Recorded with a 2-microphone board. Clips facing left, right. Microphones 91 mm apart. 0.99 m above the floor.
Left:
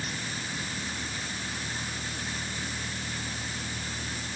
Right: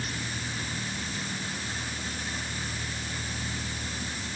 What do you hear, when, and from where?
Only background noise.